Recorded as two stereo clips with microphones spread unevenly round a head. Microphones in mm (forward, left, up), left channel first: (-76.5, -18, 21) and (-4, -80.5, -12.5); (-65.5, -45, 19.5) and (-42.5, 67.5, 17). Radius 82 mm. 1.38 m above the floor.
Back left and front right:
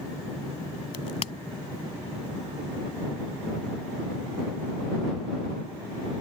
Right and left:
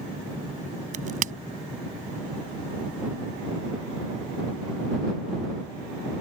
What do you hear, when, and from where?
0.9 s a crack: 85° left